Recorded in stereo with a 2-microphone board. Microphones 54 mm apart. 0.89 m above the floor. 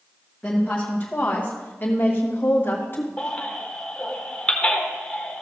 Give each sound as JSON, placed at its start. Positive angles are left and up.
{"t": 0.4, "sound": "a woman speaking", "side_deg": 20, "distance_m": 1.1}
{"t": 3.2, "sound": "a baby crying", "side_deg": 20, "distance_m": 1.3}